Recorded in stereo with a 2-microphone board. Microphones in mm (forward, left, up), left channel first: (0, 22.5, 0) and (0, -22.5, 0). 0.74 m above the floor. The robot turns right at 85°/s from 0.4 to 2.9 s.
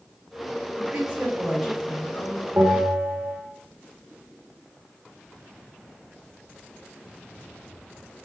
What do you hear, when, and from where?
0.8 s a woman speaking: 65° right, 4 m; by 2.5 s 80° left, 4 m
2.6 s a bell: 75° right (ahead or behind), 2.0 m; by 3.4 s 70° right (ahead or behind), 2.0 m